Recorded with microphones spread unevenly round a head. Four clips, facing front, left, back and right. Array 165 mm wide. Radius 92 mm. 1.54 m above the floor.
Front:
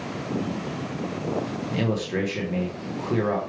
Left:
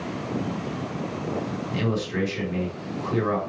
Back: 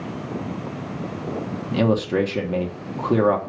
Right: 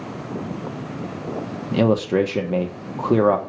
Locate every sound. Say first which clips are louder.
1.7 s a man speaking: right 11 dB, back 7 dB; 110° right, 1.6 m